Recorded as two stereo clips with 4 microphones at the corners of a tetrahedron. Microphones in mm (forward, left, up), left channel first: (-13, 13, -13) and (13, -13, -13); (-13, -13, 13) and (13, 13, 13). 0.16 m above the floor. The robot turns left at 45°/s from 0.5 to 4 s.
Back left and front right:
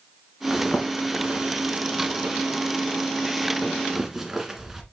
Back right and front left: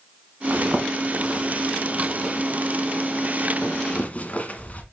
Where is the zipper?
40° left, 1.3 m; by 4.8 s 115° right, 1.3 m.